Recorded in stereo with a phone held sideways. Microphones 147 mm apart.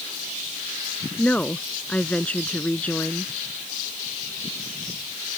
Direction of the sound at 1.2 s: 10° left (ahead or behind).